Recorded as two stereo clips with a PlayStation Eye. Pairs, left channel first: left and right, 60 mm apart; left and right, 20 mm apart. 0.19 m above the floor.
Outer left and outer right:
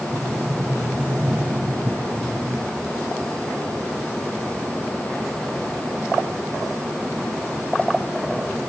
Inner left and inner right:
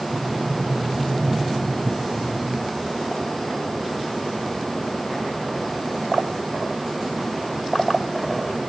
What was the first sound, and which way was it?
A sliding door, 45° right (ahead or behind).